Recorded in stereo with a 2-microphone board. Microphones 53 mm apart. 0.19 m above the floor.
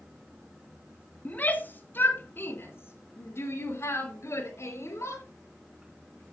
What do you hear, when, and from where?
1.2 s a shout: 30° left (ahead or behind), 2 m; by 5.2 s 55° left (ahead or behind), 4 m